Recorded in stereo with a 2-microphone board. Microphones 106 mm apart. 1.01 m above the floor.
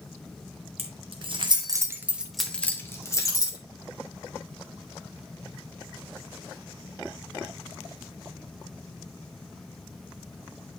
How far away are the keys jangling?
About 1.2 m.